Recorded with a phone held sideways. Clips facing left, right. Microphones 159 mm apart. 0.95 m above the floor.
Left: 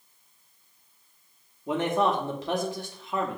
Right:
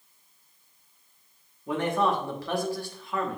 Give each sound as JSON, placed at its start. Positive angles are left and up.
{"t": 1.7, "sound": "a man speaking", "side_deg": 20, "distance_m": 0.8}